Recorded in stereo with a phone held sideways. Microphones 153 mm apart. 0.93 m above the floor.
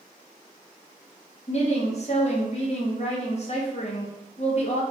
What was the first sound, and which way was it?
A woman speaking, 45° left (ahead or behind).